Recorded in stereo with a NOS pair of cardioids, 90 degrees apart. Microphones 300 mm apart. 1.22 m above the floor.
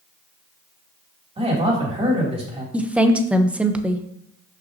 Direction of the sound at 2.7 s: 5° right.